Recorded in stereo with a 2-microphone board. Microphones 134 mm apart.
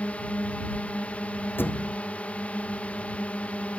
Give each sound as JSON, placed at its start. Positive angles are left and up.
{"t": 0.0, "sound": "a drone", "side_deg": 10}
{"t": 1.6, "sound": "a thud", "side_deg": 15}